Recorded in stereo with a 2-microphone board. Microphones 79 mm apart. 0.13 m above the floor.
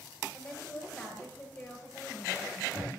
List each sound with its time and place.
0.3 s a woman speaking: 20° left (ahead or behind), 8 m